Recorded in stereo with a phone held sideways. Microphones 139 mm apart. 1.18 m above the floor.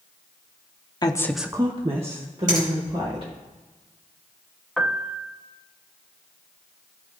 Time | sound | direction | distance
1.0 | a woman speaking | 30° left (ahead or behind) | 0.7 m
2.5 | a finger snap | 65° right (ahead or behind) | 4 m
4.8 | a piano | centre (ahead or behind) | 0.6 m